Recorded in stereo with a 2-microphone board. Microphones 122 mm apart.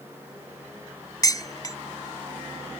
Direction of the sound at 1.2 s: 30° left (ahead or behind).